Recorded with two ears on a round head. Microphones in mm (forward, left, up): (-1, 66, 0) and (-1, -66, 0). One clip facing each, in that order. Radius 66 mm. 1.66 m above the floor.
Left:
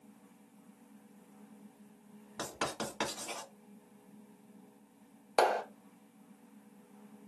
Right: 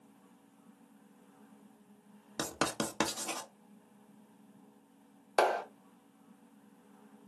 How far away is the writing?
About 0.6 m.